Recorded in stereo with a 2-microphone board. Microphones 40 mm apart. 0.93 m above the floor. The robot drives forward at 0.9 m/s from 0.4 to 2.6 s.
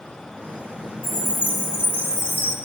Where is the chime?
45° left (ahead or behind), 1.8 m; by 2.6 s 60° left (ahead or behind), 1.4 m.